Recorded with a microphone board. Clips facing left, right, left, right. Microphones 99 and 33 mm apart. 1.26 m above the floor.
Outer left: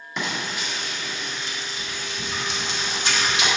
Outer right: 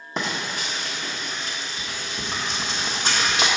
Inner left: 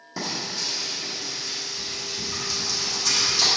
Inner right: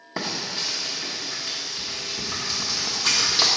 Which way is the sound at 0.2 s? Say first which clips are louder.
Outer right 1 dB, inner right 1 dB; 40° right (ahead or behind).